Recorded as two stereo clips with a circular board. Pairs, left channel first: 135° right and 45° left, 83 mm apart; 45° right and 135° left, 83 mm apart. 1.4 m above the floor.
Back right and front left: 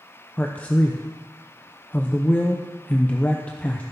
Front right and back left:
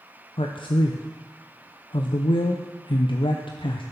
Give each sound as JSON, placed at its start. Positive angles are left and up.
{"t": 0.4, "sound": "a man speaking", "azimuth_deg": -60, "distance_m": 0.6}